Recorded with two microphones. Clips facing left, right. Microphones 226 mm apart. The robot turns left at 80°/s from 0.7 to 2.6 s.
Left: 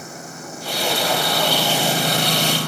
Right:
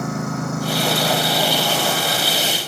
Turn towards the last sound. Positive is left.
turn(degrees=100)